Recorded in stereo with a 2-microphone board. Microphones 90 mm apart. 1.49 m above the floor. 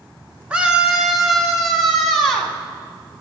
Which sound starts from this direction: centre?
A scream, at 0.5 s.